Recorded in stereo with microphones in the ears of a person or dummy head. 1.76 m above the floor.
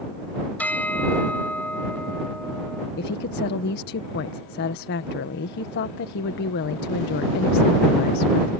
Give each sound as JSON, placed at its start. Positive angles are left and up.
{"t": 0.6, "sound": "a bell", "side_deg": 5}
{"t": 3.0, "sound": "a woman speaking", "side_deg": 55}